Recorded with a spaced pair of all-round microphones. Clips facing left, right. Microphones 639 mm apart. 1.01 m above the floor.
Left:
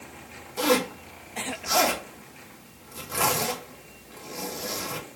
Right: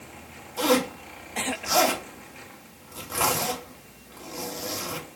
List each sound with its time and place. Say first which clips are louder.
0.6 s a zipper: right 1 dB; 50° left (ahead or behind), 1.9 m